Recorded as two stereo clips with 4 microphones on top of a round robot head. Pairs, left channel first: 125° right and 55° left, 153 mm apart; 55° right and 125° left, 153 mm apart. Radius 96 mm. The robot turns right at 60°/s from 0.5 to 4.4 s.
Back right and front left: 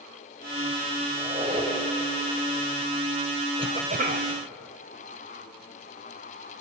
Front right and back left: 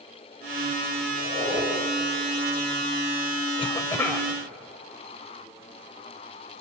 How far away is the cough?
About 2.5 m.